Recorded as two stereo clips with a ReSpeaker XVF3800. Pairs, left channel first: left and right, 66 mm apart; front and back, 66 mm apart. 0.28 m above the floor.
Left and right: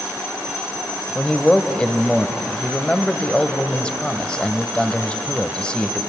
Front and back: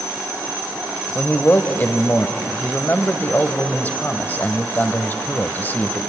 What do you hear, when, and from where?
1.1 s a man speaking: 25° left, 1.1 m